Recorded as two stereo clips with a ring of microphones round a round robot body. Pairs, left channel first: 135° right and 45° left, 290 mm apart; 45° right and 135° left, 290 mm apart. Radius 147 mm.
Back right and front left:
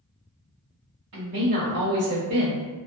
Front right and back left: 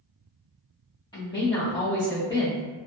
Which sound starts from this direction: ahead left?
A woman speaking, at 1.1 s.